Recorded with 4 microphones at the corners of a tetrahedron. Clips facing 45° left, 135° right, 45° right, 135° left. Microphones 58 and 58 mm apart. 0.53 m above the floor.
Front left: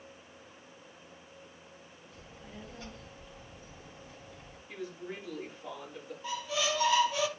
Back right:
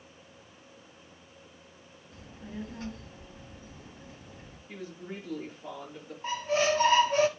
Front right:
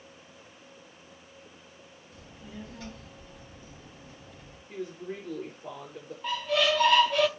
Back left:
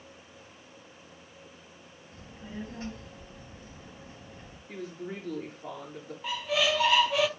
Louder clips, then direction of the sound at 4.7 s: Even, front right 1 dB; 150° left.